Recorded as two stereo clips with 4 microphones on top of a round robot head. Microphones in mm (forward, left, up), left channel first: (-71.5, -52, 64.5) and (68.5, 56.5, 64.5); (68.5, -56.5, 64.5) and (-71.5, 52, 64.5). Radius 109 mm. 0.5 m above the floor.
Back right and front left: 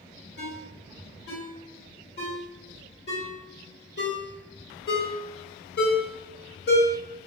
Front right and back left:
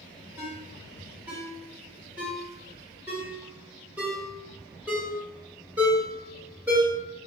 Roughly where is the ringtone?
Behind right.